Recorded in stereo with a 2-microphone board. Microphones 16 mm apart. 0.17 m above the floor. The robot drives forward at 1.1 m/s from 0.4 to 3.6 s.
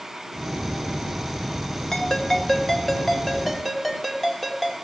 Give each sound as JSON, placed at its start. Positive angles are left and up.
{"t": 1.9, "sound": "a ringtone", "side_deg": 40, "distance_m": 1.6}